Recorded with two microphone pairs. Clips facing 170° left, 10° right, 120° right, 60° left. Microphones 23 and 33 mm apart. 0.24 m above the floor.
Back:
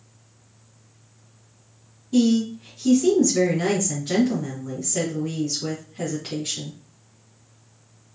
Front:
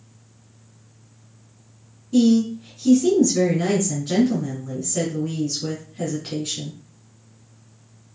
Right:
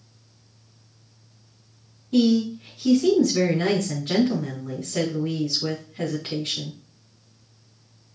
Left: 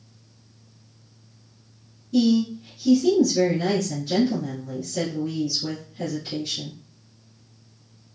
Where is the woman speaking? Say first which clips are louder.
Front 2 dB, even; 120° right, 2 m.